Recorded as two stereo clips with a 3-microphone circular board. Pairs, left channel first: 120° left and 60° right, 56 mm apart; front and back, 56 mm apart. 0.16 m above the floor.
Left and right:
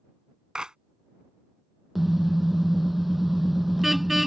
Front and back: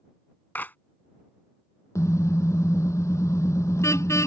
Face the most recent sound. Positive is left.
turn(degrees=30)